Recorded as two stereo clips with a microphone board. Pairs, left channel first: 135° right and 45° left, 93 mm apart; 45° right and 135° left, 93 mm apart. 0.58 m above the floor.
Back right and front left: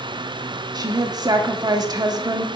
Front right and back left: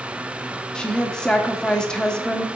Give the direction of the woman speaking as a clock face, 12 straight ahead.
11 o'clock.